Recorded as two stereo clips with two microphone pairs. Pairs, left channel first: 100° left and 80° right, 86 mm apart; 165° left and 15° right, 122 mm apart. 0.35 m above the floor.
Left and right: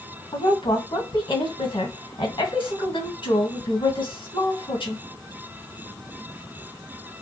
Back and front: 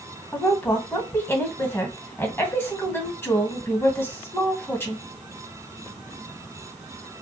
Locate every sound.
0.3 s a woman speaking: 95° left, 2.5 m